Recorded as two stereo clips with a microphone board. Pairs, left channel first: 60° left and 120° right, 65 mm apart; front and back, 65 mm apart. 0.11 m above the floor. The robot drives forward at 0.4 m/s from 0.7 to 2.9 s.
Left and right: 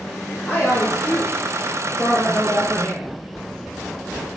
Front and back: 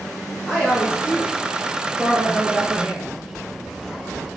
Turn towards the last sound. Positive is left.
turn(degrees=135)